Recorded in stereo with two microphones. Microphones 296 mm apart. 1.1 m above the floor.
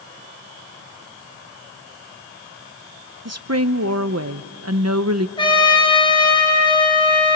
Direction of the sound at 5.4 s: 15° left (ahead or behind).